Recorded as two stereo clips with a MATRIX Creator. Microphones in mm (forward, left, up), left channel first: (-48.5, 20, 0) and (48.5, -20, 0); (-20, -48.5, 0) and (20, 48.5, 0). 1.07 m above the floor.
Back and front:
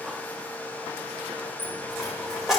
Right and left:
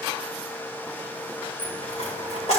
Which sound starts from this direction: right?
A dropped coin, at 1.6 s.